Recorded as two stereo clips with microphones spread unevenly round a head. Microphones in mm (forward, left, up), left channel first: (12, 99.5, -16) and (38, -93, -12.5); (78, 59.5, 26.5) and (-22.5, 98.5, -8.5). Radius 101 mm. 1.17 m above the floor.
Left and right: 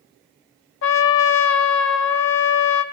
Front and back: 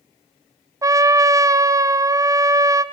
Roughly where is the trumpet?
Left.